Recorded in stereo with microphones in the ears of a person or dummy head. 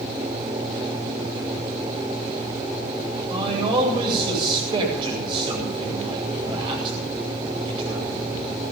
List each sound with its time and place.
3.3 s a man speaking: 25° right (ahead or behind), 8.5 m